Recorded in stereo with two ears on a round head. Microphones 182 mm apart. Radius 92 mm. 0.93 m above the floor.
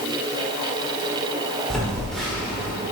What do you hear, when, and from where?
1.7 s a phone buzzing: 5° left (ahead or behind), 1.6 m